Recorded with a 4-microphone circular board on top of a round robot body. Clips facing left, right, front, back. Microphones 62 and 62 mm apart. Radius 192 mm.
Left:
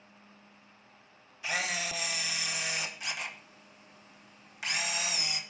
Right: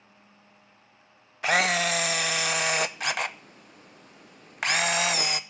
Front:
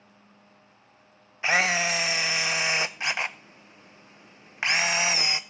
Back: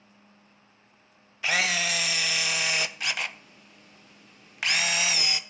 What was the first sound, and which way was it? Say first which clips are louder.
A camera shutter: right 10 dB, front 3 dB; 65° right.